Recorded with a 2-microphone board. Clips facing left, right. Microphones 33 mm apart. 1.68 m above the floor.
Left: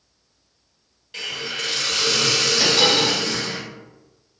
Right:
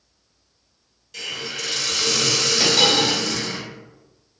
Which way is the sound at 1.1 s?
35° left (ahead or behind).